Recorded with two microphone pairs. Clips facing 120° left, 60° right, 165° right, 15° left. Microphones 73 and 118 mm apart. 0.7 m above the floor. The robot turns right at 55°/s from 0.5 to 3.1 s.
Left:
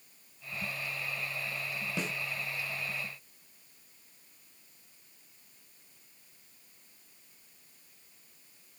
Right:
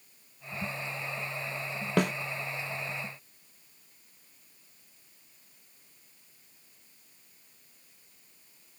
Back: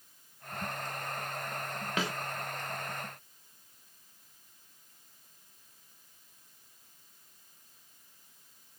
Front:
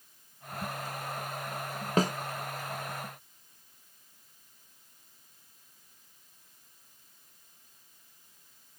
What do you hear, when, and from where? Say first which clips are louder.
2.0 s a snare drum: right 11 dB, front 8 dB; 35° right, 0.6 m; by 2.1 s 25° right, 0.6 m